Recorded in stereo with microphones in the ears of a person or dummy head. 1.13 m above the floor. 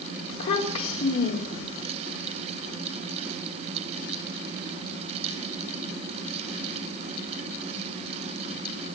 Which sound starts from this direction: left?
A child speaking, at 0.3 s.